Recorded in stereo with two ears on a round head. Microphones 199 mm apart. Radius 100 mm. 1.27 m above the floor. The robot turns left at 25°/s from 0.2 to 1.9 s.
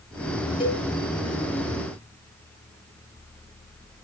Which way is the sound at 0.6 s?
20° left (ahead or behind).